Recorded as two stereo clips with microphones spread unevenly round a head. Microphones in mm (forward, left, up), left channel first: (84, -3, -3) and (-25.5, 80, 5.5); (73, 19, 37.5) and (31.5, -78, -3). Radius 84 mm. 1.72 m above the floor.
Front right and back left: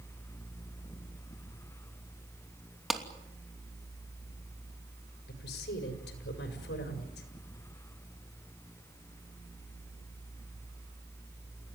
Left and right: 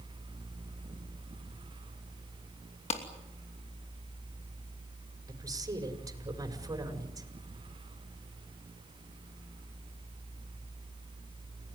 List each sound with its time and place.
2.9 s a clap: 55° left, 3 m
5.3 s a woman speaking: 55° right, 5.5 m